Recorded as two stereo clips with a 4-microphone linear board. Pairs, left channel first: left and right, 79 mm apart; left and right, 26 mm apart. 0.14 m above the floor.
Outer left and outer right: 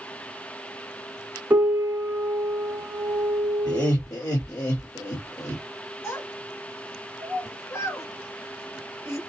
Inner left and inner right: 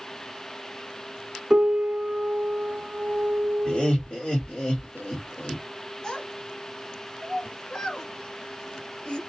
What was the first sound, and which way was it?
A piano, 20° right (ahead or behind).